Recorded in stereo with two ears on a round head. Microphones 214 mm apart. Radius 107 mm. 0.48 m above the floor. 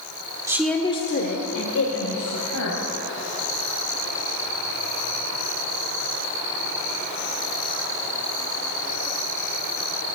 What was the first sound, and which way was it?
A woman speaking, 15° right (ahead or behind).